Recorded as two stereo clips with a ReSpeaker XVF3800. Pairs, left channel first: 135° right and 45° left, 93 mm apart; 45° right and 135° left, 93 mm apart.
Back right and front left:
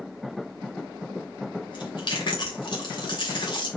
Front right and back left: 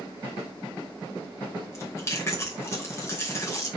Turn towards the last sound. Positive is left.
turn(degrees=-105)